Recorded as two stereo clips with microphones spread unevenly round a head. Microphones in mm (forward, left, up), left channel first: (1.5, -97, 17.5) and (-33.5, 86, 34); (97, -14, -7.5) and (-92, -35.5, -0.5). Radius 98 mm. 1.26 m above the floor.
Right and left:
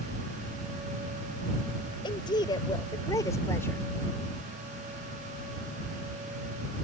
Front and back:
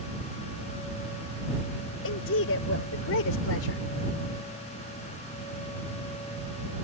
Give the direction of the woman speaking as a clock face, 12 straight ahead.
12 o'clock.